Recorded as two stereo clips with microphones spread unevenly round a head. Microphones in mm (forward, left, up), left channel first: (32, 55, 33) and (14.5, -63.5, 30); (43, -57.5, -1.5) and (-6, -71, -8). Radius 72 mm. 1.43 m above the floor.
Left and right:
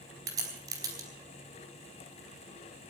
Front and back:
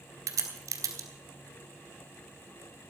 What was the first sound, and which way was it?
A crack, 165° right.